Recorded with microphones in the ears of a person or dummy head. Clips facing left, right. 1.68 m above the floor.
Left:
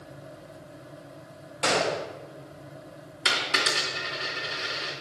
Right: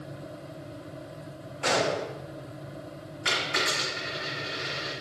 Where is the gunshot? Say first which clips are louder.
Even; 65° left (ahead or behind), 2.5 m.